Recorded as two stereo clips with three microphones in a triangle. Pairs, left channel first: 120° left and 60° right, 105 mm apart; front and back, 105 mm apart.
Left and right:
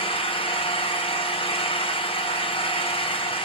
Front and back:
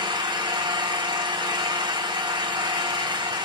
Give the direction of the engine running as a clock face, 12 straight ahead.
7 o'clock.